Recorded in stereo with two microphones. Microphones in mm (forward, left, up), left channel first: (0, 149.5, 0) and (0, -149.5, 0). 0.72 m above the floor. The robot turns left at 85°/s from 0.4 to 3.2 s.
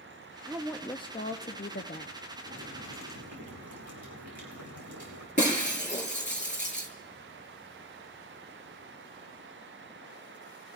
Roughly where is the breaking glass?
Left.